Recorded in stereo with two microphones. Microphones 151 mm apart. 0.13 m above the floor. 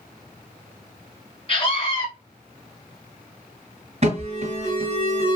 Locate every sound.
1.5 s a scream: 40° left (ahead or behind), 1.9 m
4.0 s an alarm: 45° right (ahead or behind), 3 m